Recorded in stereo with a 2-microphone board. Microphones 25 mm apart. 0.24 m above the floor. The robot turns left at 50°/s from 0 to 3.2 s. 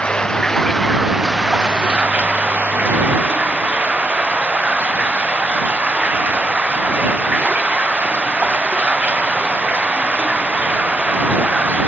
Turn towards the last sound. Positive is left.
turn(degrees=-110)